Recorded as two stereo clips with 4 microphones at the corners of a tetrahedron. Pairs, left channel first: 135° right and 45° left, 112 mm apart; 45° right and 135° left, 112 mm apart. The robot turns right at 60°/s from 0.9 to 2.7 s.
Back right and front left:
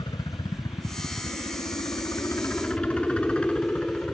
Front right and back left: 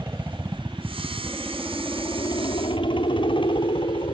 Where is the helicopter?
165° right; by 4.1 s 60° right.